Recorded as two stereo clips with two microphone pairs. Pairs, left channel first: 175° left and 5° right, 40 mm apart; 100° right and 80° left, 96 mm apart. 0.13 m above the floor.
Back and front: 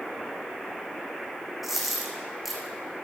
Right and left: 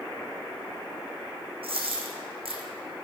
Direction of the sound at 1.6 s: 80° left.